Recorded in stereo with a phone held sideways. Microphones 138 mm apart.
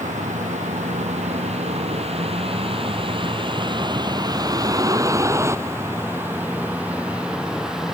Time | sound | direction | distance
0.0 | a vehicle | 60° right (ahead or behind) | ?